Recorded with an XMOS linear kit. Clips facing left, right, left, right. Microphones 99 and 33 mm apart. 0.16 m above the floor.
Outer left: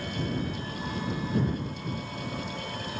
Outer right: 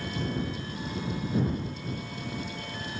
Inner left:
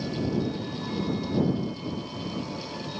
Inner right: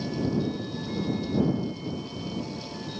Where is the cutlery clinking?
I don't hear cutlery clinking.